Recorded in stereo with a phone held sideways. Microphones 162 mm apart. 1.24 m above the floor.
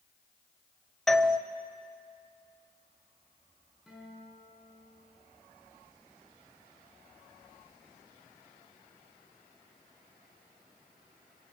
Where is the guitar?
Centre (ahead or behind), 8 m.